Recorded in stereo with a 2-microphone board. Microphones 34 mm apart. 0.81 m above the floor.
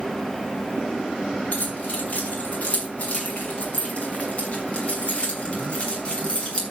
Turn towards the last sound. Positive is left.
turn(degrees=30)  # may be behind; listen again after turning